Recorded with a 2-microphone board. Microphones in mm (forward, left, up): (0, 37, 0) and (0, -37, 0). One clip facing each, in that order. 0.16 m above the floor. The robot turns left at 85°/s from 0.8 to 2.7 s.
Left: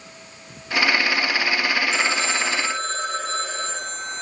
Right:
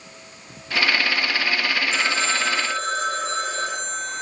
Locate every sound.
1.9 s a phone ringing: straight ahead, 5 m; by 4.2 s 70° right, 5 m